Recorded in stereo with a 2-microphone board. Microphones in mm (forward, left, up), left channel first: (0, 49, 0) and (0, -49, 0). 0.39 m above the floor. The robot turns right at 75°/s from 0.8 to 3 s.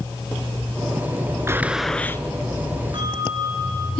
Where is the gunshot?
25° right, 0.9 m; by 2.2 s 30° left, 0.9 m.